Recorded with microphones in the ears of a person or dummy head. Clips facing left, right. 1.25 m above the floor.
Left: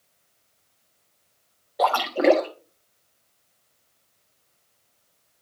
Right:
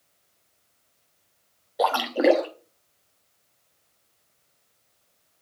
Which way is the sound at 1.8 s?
Centre (ahead or behind).